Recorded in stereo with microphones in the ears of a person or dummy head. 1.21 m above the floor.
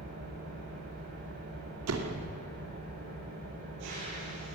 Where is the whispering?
No whispering in this recording.